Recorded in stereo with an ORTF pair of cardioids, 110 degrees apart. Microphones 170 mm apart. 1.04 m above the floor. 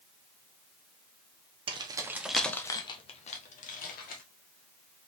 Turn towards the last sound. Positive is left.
turn(degrees=60)